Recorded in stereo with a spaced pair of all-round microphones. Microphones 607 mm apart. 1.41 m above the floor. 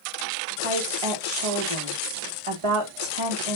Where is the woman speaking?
60° right (ahead or behind), 1.5 m.